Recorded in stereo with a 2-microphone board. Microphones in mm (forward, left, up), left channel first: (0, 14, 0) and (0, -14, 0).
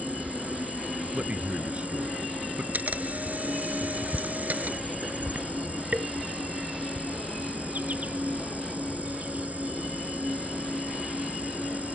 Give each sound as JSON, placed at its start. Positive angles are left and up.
{"t": 0.0, "sound": "an insect", "side_deg": -65}
{"t": 1.1, "sound": "a man speaking", "side_deg": -45}
{"t": 2.7, "sound": "a camera shutter", "side_deg": -70}